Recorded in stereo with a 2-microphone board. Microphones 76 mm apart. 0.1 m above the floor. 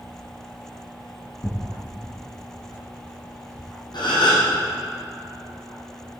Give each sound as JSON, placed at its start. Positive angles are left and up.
{"t": 1.4, "sound": "tearing paper", "side_deg": 55, "distance_m": 3.0}
{"t": 3.9, "sound": "a gasp", "side_deg": 75, "distance_m": 4.0}